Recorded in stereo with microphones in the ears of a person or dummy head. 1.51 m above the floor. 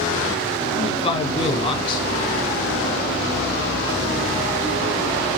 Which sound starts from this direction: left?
A man speaking, at 0.7 s.